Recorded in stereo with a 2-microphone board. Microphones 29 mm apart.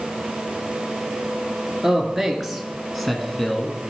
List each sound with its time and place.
1.8 s a man speaking: 10° right (ahead or behind), 2 m; by 3.8 s 15° left (ahead or behind), 1.5 m